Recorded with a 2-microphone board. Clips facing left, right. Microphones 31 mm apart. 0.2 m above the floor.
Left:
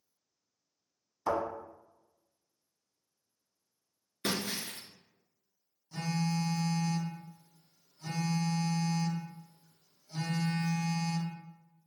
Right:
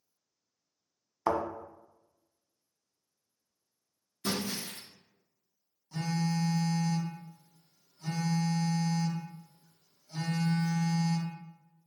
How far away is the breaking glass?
About 0.7 m.